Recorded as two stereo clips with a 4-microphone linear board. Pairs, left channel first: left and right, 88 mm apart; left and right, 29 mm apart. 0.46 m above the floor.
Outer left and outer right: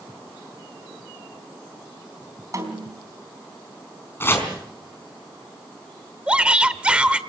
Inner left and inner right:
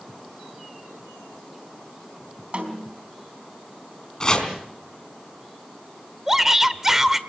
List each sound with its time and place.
2.5 s a snare drum: 40° right (ahead or behind), 3.5 m
4.2 s chopping: 25° left (ahead or behind), 4 m
6.3 s a shout: 15° right (ahead or behind), 1.2 m